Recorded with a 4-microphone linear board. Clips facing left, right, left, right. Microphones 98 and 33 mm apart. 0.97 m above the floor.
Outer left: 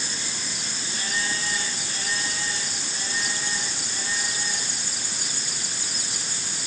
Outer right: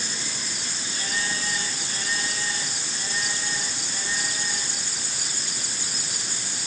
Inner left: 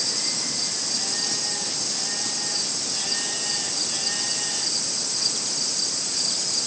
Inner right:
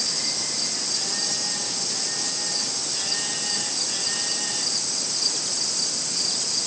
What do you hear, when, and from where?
Only background noise.